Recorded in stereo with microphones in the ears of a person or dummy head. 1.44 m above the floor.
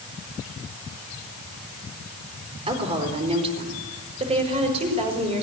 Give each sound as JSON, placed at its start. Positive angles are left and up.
{"t": 2.7, "sound": "a woman speaking", "side_deg": -30, "distance_m": 4.5}